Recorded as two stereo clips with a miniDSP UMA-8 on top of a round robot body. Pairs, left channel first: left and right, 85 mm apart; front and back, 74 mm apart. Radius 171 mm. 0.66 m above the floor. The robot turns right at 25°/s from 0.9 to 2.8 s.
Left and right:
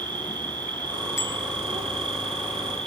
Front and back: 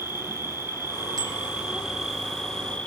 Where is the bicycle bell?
145° left, 4.5 m; by 1.4 s 150° left, 4.5 m.